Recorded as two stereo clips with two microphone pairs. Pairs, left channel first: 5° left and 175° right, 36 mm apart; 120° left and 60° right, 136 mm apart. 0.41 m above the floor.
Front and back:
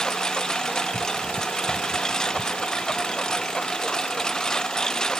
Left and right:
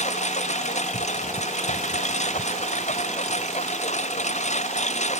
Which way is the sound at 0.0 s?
80° left.